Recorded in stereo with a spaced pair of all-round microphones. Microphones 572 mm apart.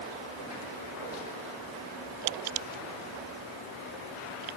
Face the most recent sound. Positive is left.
No sound to turn to.